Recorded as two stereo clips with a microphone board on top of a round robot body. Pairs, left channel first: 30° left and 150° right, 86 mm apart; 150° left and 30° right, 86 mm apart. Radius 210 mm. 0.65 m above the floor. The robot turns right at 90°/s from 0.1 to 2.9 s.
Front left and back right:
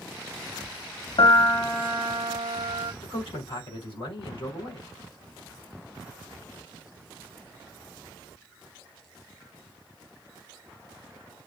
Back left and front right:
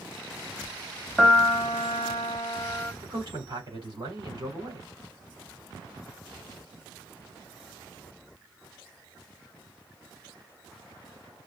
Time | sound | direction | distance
1.2 | a piano | 60° left | 0.7 m
3.0 | a man speaking | 10° left | 4 m